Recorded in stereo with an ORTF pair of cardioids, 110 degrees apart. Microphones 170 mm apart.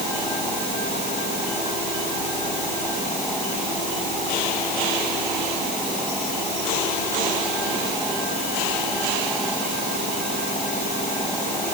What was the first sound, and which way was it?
Only background noise.